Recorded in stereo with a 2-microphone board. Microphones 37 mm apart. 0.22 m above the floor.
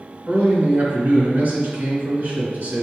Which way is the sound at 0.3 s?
55° right (ahead or behind).